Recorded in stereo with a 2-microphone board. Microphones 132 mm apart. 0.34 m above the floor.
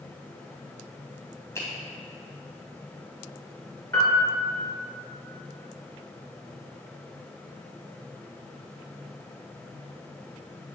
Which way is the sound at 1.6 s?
20° left (ahead or behind).